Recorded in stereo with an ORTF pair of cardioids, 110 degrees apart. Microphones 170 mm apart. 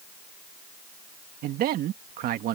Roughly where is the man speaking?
Right.